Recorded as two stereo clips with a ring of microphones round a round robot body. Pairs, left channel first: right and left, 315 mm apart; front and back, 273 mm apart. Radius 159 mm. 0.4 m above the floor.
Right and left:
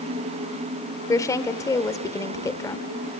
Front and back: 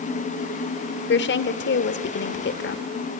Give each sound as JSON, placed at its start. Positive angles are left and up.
{"t": 1.1, "sound": "a woman speaking", "azimuth_deg": -15, "distance_m": 1.2}